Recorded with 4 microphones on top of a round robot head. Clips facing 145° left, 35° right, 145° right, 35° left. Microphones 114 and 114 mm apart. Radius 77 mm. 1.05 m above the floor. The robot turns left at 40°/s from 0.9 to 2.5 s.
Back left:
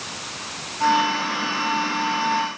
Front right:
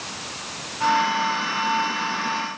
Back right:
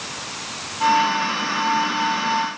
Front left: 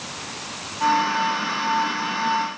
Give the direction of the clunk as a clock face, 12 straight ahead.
No clunk in this recording.